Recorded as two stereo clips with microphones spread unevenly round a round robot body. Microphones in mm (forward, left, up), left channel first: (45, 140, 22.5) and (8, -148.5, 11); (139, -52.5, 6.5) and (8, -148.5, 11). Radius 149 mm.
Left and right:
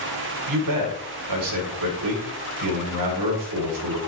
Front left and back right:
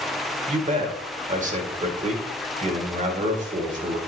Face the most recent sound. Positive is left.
turn(degrees=-105)